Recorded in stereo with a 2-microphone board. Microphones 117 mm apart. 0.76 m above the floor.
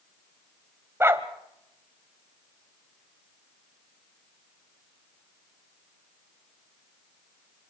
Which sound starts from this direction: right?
A dog barking, at 1.0 s.